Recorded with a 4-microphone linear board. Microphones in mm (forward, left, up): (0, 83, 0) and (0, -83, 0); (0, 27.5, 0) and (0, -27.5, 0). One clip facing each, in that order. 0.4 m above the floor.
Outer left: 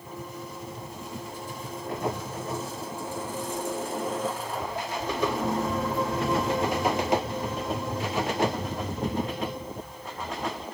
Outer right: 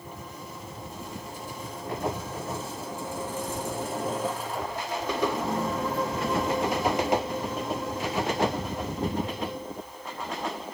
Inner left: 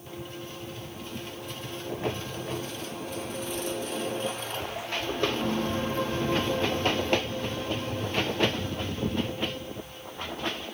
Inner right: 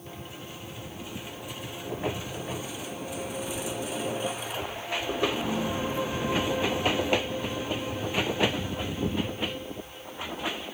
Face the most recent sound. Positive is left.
turn(degrees=55)  # may be behind; listen again after turning